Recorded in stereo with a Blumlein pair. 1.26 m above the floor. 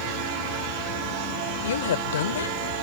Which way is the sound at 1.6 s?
60° left.